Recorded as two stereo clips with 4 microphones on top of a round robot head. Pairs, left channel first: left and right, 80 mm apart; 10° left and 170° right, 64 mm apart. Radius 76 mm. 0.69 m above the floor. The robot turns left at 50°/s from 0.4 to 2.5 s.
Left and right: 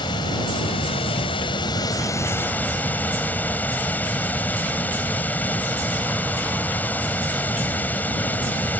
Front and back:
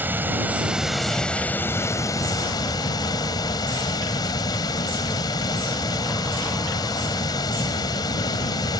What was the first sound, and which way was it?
Running water, 125° left.